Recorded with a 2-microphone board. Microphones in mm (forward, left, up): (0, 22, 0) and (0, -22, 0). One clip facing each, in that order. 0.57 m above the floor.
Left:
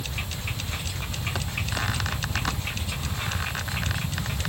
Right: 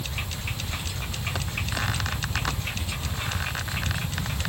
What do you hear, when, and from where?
Only background noise.